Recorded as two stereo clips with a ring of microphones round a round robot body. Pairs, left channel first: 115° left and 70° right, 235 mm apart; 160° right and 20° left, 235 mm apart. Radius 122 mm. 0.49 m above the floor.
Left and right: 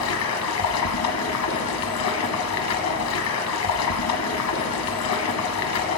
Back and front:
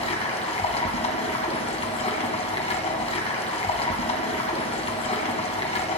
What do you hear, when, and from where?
0.0 s running water: 135° left, 1.6 m